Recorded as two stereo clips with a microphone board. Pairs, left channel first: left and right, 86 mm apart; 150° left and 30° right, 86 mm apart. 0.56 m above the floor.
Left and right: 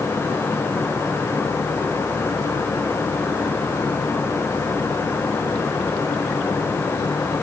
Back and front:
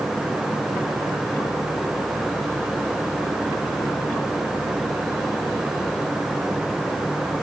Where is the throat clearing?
I don't hear throat clearing.